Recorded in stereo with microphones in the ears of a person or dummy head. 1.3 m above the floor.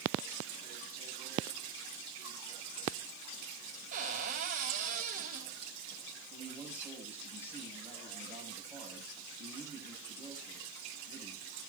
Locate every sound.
3.9 s a cupboard door: 45° right (ahead or behind), 4 m
6.3 s a man speaking: 10° right (ahead or behind), 10 m